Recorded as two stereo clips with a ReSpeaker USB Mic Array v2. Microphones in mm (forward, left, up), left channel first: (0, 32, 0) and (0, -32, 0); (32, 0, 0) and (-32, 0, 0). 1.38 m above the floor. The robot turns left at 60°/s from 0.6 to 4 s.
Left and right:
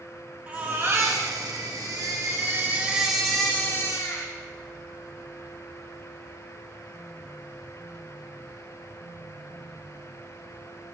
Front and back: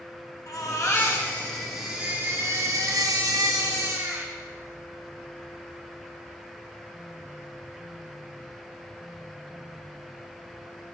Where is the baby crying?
25° right, 1.3 m; by 4.3 s 130° left, 1.3 m.